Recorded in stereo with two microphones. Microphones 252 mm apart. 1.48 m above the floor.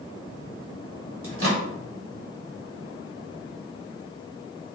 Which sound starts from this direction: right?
A microwave, at 1.2 s.